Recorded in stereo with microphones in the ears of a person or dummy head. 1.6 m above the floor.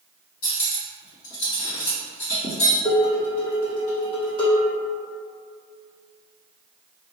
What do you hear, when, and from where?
0.4 s cutlery clinking: 60° left (ahead or behind), 1.7 m
2.9 s dishes clattering: 45° left (ahead or behind), 1.5 m